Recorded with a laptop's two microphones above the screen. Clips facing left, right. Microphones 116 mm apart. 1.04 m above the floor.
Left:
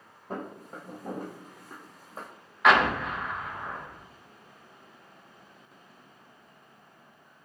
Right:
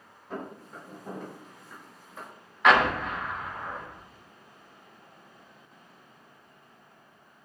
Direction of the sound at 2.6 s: Centre (ahead or behind).